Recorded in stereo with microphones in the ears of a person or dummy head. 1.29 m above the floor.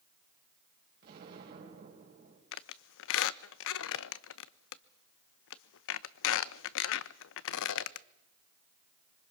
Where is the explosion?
55° right (ahead or behind), 4.5 m.